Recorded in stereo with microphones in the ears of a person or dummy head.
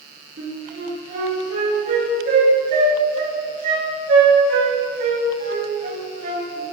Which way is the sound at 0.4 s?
50° right (ahead or behind).